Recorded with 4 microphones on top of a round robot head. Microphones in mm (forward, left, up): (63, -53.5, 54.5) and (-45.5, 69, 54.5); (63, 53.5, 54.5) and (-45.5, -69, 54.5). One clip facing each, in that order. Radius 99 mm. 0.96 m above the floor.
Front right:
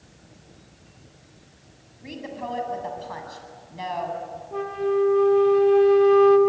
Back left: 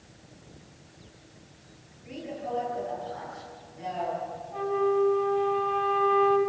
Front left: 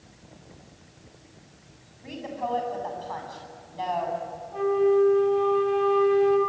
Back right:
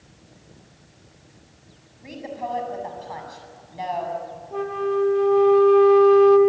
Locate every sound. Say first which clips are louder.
2.0 s a woman speaking: front right 2 dB, back right 1 dB; 55° right, 7.5 m
4.5 s a flute: front right 2 dB, front left 3 dB; 95° right, 2 m